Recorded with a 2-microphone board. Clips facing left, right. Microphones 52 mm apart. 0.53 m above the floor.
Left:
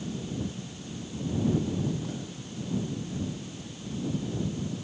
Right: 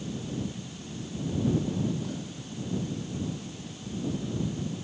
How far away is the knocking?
No knocking in this recording.